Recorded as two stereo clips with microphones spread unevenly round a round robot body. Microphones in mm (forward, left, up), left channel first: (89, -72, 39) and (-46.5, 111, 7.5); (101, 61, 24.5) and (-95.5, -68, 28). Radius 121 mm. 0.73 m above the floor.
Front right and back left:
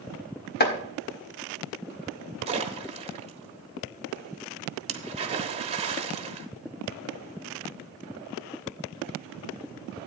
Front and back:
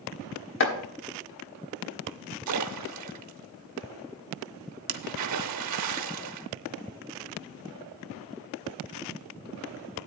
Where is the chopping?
5° right, 1.6 m.